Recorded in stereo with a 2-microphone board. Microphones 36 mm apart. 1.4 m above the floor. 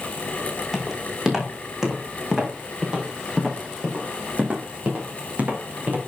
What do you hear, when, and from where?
0.7 s footsteps: 10° right (ahead or behind), 6 m; by 6.0 s 45° right (ahead or behind), 5.5 m